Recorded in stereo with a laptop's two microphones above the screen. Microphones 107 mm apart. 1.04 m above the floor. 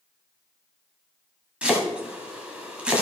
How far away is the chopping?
About 1.6 m.